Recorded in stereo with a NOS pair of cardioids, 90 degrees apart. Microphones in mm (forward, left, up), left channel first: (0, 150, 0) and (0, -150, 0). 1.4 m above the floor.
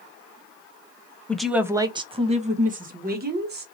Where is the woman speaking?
5° left, 0.6 m; by 3.6 s 35° right, 1.7 m.